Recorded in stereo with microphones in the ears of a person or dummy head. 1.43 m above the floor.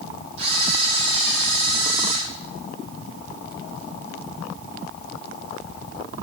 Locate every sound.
0.4 s a camera shutter: 70° right (ahead or behind), 6 m